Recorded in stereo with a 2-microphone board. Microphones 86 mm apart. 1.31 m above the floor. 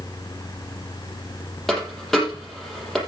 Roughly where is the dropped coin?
Centre.